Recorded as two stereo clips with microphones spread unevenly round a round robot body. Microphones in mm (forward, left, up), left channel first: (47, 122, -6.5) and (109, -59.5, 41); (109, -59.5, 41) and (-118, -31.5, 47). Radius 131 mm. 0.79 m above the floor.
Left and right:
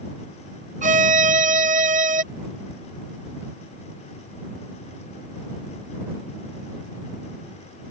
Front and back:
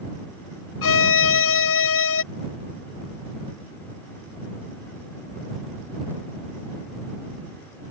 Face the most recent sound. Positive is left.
turn(degrees=-15)